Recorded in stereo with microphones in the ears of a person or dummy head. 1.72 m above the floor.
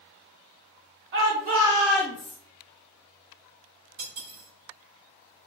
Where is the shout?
60° right (ahead or behind), 0.7 m; by 2.4 s 35° left (ahead or behind), 0.7 m.